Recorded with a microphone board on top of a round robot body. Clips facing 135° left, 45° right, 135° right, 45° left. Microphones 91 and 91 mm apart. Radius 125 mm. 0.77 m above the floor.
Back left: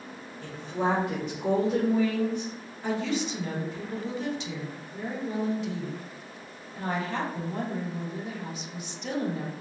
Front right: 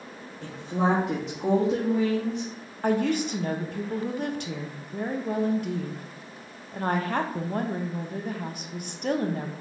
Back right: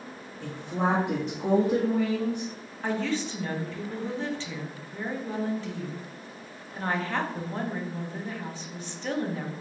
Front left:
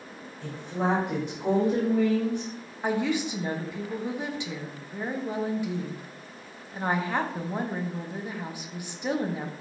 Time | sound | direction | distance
0.4 | a woman speaking | 75° right | 1.4 m
2.8 | a woman speaking | 25° right | 0.8 m